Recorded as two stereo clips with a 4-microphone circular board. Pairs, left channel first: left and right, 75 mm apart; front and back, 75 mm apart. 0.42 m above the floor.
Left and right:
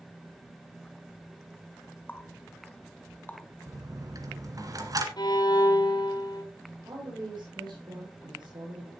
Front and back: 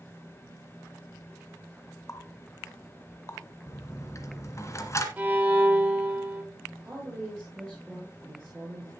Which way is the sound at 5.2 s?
110° left.